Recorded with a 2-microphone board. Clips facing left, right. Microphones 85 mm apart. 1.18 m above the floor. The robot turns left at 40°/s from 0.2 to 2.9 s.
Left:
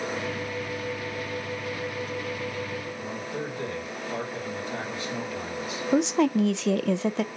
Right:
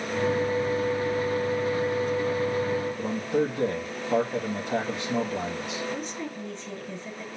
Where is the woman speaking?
80° left, 0.6 m.